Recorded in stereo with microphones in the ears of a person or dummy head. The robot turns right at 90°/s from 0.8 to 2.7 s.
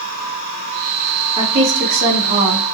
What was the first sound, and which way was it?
A woman speaking, 160° right.